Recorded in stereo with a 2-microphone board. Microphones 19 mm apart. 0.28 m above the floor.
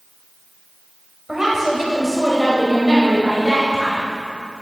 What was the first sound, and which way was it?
A woman speaking, 20° right (ahead or behind).